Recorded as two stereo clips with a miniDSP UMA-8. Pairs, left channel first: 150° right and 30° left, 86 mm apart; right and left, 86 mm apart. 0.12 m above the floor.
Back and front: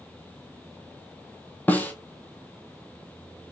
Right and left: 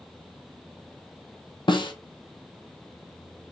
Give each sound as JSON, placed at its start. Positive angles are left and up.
{"t": 1.7, "sound": "a snare drum", "azimuth_deg": -80, "distance_m": 0.9}